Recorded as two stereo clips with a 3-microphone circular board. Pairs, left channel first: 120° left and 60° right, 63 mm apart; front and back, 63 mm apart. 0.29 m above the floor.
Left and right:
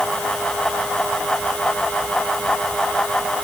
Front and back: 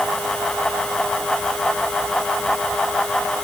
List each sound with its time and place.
Only background noise.